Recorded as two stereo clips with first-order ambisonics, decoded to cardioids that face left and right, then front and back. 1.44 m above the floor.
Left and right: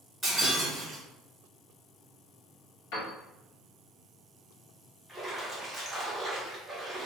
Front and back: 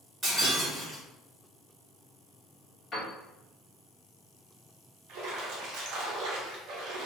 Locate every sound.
0.2 s breaking glass: 165° right, 1.2 m
2.9 s a piano: 75° left, 1.0 m
5.1 s a splash: 175° right, 0.7 m